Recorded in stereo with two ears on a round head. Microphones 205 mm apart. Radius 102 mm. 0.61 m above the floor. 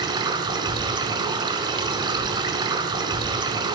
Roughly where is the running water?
Centre.